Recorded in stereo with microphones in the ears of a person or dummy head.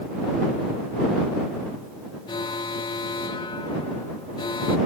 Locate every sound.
2.3 s an alarm: 25° left (ahead or behind)